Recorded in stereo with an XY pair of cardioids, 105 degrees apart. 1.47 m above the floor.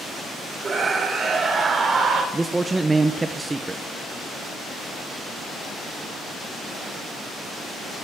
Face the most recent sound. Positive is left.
turn(degrees=-20)